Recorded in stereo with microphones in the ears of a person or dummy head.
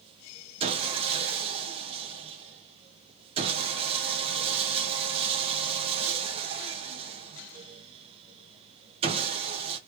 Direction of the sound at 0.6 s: 35° right (ahead or behind).